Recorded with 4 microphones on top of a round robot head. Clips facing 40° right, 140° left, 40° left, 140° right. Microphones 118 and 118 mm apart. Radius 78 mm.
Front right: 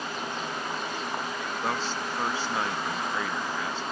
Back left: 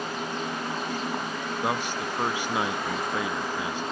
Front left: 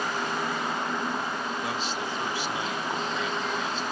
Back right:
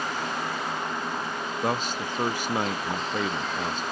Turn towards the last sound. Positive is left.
turn(degrees=-150)